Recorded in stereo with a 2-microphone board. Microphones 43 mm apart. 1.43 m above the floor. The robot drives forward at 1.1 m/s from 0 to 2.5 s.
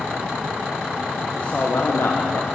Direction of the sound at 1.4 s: 35° left (ahead or behind).